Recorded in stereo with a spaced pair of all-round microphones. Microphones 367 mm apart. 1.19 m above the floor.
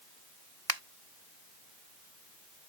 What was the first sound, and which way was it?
A finger snap, 75° right (ahead or behind).